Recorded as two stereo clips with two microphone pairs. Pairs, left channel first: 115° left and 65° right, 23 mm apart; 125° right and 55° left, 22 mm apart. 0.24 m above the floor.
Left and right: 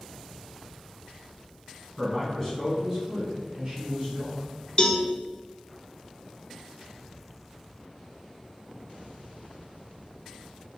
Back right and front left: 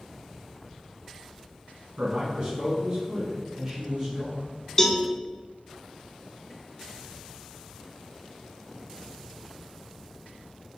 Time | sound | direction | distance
2.0 | a man speaking | 55° left | 1.8 m
4.8 | a cowbell | 175° left | 0.5 m